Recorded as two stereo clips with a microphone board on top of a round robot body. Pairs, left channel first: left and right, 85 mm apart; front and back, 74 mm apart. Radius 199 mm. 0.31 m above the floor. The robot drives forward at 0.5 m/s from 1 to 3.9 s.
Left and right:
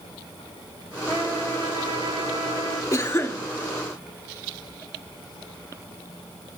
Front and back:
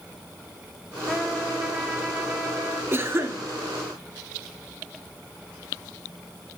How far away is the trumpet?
About 2 m.